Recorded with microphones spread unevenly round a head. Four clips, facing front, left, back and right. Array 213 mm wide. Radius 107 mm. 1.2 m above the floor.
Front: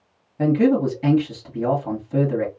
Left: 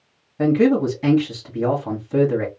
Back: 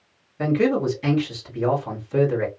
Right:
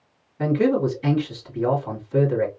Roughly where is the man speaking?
Ahead left.